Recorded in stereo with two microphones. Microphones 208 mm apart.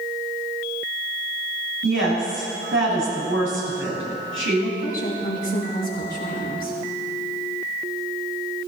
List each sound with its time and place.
1.8 s a woman speaking: 70° right (ahead or behind), 6 m
4.8 s a woman speaking: 45° left (ahead or behind), 4 m